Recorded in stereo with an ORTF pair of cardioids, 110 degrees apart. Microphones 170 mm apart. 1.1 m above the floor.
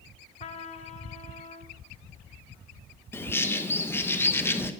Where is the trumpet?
40° left, 0.9 m.